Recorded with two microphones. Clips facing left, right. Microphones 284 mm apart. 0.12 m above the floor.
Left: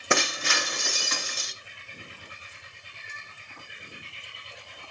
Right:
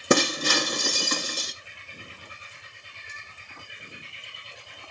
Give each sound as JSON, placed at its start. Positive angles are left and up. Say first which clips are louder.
{"t": 0.1, "sound": "breaking glass", "louder": "right 7 dB", "side_deg": -45, "distance_m": 0.8}